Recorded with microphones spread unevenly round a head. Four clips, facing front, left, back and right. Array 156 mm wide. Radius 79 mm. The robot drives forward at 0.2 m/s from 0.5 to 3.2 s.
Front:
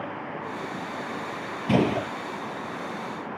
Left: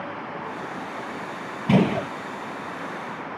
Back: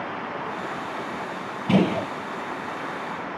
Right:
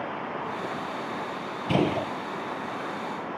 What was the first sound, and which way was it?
A gunshot, 95° left.